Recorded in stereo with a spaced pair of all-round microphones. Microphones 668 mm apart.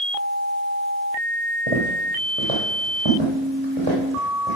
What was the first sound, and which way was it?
Footsteps, 50° right (ahead or behind).